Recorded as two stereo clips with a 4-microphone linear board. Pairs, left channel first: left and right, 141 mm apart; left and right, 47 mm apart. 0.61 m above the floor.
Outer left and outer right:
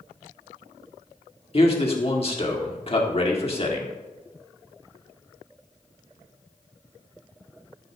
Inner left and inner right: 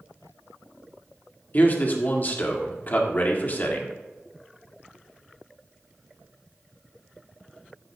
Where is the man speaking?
45° left (ahead or behind), 1.7 m.